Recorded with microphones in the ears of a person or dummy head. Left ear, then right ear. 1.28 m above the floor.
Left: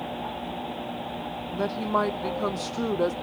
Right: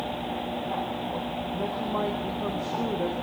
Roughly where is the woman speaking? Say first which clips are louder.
Left 5 dB; left.